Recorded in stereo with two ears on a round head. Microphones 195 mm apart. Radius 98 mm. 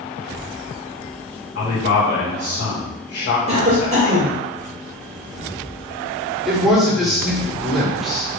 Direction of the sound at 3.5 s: 30° right (ahead or behind).